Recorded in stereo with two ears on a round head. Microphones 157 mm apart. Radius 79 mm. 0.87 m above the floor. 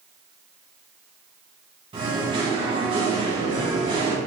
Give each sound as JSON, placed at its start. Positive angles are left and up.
{"t": 1.9, "sound": "singing", "side_deg": -30, "distance_m": 2.5}